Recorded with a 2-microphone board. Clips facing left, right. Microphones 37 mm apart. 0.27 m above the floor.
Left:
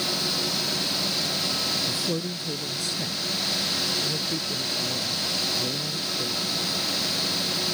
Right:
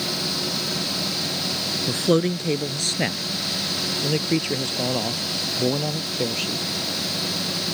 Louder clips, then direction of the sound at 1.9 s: Right 8 dB; 55° right (ahead or behind).